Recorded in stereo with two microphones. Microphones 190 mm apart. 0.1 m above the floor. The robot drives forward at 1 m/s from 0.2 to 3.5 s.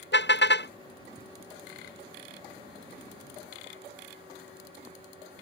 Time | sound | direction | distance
0.1 | a car horn | 70° left (ahead or behind) | ?